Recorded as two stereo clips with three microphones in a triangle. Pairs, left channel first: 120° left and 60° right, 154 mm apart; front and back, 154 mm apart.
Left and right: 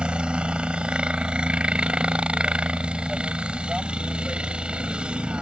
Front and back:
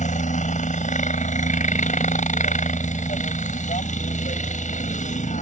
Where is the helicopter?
20° left.